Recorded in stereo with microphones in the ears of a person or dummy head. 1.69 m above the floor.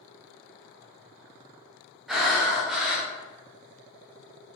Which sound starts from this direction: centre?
Breathing, at 2.1 s.